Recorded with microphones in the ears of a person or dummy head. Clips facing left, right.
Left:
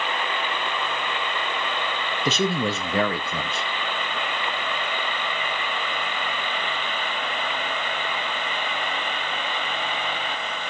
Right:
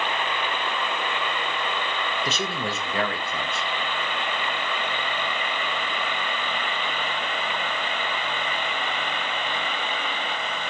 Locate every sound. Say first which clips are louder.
2.2 s a man speaking: left 5 dB; 75° left (ahead or behind), 1.1 m